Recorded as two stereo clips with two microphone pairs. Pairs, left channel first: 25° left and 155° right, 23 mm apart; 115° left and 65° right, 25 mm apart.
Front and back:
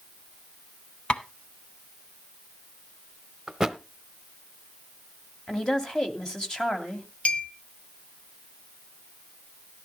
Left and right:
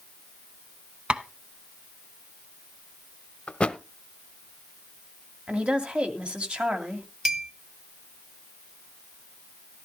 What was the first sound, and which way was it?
Tapping, 10° right.